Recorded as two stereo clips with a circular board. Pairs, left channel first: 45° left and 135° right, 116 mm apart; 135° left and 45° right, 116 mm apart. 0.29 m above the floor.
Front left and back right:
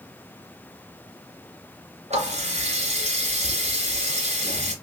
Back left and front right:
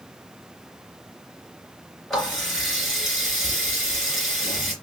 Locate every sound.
2.1 s a running tap: 135° right, 2.5 m